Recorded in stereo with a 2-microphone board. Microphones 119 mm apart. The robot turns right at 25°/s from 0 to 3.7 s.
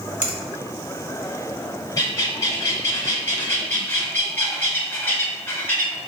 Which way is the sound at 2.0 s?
105° left.